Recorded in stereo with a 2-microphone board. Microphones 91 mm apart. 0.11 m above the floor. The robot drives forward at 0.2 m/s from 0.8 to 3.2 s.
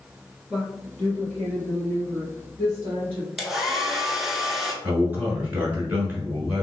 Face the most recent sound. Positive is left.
turn(degrees=-20)  # may be behind; listen again after turning